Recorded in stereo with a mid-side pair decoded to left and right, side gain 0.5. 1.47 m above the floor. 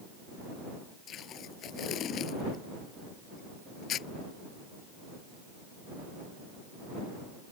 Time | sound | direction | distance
1.1 | tape being pulled | 60° left | ?